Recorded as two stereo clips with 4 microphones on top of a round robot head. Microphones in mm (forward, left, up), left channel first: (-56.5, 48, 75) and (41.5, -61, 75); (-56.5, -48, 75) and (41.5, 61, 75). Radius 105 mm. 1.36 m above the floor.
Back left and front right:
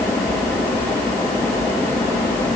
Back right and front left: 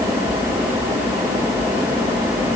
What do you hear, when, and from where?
Only background noise.